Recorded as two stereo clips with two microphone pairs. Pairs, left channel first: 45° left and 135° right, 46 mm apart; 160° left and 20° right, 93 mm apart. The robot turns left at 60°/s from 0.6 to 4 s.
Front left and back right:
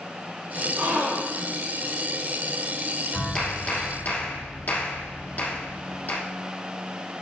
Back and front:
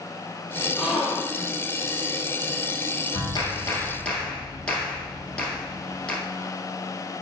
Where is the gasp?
100° right, 3.5 m; by 1.6 s 145° right, 3.5 m.